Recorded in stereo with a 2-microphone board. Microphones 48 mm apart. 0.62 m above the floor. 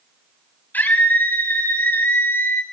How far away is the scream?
About 4.5 m.